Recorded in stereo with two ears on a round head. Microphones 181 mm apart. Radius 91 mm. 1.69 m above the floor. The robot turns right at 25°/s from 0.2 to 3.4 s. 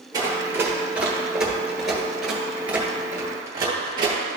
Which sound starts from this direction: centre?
Running footsteps, at 0.1 s.